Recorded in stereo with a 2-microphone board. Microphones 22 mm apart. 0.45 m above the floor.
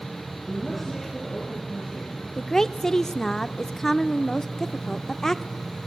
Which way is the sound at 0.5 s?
Centre (ahead or behind).